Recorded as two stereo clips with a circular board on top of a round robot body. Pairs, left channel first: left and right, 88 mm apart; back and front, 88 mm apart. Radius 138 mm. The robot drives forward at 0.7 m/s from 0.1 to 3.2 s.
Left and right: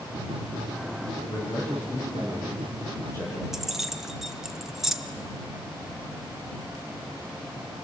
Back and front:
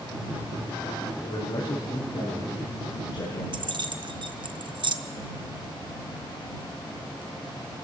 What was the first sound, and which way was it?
A man speaking, 135° left.